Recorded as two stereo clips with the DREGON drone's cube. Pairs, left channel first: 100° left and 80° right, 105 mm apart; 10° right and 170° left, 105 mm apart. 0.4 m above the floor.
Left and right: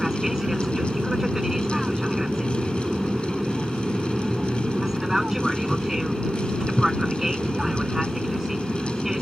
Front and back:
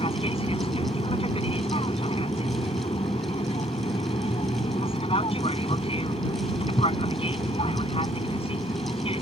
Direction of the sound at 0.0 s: 5° left.